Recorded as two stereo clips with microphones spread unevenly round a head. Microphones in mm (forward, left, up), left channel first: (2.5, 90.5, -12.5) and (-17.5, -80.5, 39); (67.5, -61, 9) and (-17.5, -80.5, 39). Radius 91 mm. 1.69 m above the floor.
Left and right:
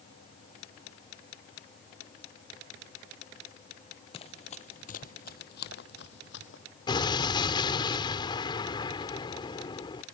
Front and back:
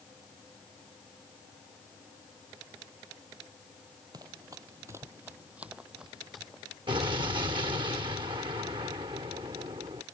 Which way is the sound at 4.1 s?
150° left.